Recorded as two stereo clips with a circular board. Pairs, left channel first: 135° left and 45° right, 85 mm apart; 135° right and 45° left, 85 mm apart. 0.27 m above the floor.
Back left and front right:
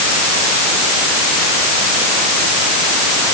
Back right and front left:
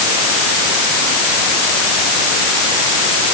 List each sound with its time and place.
Only background noise.